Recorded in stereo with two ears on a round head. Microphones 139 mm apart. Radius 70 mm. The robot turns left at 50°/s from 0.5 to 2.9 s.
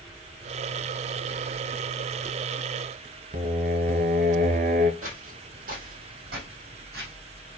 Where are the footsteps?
55° right (ahead or behind), 3 m; by 7.1 s 70° right (ahead or behind), 4.5 m.